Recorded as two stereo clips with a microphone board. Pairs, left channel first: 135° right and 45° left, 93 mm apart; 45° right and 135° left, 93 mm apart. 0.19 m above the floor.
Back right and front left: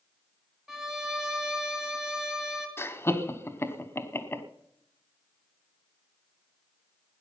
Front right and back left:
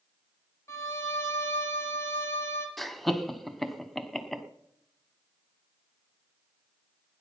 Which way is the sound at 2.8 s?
130° right.